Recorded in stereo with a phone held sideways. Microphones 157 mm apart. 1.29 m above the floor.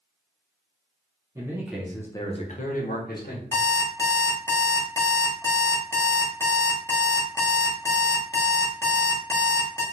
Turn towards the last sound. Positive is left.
turn(degrees=20)  # may be behind; listen again after turning